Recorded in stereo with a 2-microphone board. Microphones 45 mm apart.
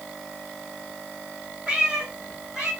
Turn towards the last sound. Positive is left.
turn(degrees=-20)  # may be behind; listen again after turning